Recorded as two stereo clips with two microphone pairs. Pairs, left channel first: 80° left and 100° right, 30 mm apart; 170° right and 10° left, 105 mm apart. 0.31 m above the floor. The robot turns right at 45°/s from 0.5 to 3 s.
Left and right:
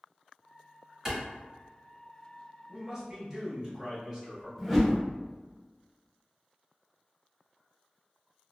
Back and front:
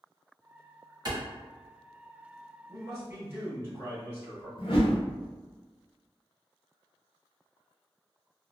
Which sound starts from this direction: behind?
A whoosh, at 4.6 s.